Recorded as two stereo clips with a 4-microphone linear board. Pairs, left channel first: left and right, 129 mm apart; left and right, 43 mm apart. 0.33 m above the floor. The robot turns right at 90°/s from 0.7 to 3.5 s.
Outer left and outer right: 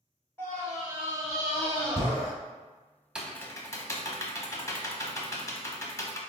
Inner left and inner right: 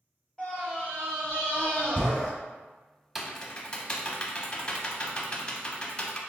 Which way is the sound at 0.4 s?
15° left (ahead or behind).